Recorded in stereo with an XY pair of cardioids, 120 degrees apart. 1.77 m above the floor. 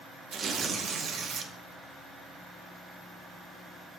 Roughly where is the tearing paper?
Ahead right.